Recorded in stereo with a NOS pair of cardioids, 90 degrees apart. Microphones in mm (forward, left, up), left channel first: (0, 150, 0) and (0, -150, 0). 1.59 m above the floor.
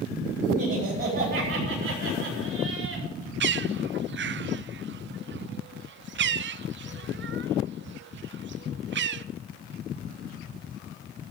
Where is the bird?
40° right, 0.6 m.